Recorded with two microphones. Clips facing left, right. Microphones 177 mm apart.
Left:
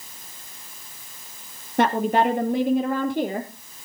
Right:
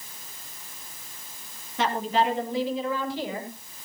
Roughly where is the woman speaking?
Left.